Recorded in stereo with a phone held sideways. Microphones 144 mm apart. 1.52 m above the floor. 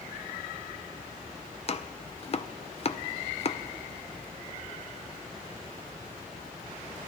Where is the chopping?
40° left (ahead or behind), 0.6 m.